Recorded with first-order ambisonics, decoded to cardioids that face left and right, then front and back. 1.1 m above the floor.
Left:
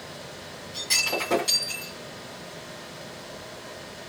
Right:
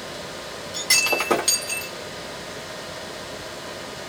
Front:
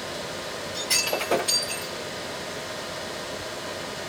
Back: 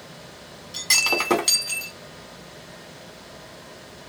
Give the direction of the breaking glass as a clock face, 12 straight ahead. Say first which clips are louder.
Right 5 dB, back 5 dB; 5 o'clock.